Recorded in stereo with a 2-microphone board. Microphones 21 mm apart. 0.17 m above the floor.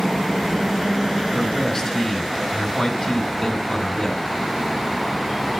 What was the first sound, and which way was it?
A man speaking, 25° left (ahead or behind).